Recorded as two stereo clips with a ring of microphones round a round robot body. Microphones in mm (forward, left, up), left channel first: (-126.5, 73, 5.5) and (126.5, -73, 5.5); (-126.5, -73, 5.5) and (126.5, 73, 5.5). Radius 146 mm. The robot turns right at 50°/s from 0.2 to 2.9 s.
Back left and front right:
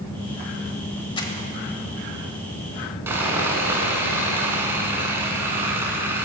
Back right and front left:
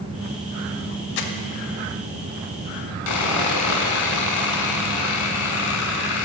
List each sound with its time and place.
1.2 s crumpling: 135° right, 0.8 m; by 1.3 s 130° right, 0.8 m
3.1 s sawing: 110° right, 0.9 m